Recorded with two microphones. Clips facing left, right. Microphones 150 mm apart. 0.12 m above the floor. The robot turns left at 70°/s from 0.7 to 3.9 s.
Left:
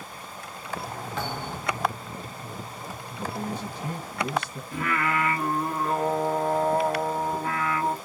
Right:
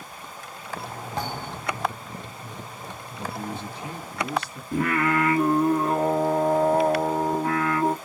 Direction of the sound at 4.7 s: 45° right (ahead or behind).